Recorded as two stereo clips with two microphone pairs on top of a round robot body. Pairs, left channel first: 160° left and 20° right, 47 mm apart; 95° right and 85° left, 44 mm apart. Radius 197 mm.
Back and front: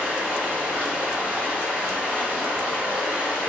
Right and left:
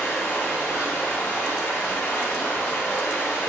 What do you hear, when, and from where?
0.0 s running water: 85° right, 1.6 m